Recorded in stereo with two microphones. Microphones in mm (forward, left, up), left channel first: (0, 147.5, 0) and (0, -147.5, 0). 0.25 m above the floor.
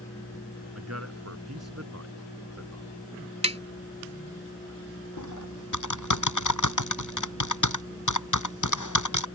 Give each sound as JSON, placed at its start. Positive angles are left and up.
{"t": 0.8, "sound": "a man speaking", "side_deg": -60}
{"t": 3.4, "sound": "tapping", "side_deg": -20}
{"t": 5.2, "sound": "typing on a keyboard", "side_deg": 85}